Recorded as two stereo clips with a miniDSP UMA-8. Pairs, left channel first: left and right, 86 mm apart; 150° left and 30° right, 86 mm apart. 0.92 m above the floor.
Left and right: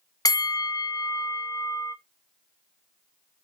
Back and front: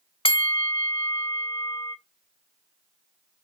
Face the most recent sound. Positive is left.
turn(degrees=135)